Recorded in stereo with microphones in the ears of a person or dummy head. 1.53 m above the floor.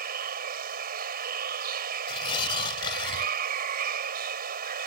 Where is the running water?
55° right (ahead or behind).